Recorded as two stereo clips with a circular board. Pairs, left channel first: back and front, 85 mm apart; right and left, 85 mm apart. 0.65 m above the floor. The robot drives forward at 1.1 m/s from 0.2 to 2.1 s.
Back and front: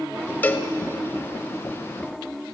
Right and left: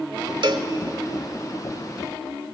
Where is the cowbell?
110° left, 1.0 m; by 0.7 s 125° left, 1.2 m.